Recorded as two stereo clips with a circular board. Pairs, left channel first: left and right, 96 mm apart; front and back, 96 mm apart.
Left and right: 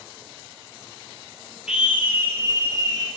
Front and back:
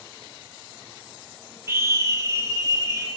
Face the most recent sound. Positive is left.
turn(degrees=-135)